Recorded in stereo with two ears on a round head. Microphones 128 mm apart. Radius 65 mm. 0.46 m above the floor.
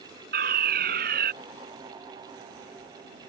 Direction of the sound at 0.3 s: 75° right (ahead or behind).